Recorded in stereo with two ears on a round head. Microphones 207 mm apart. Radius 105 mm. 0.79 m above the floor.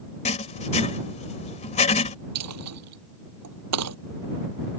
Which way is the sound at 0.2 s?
30° left (ahead or behind).